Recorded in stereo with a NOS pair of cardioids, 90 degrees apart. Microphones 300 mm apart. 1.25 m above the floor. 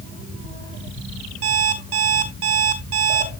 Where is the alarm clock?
55° right, 4.5 m.